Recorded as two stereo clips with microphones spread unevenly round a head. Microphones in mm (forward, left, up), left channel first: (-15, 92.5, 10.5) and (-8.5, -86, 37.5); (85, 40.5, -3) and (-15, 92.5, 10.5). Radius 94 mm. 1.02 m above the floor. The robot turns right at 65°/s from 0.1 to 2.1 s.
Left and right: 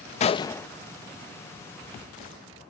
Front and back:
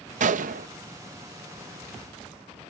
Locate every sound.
0.2 s a gunshot: 145° left; by 0.7 s 175° left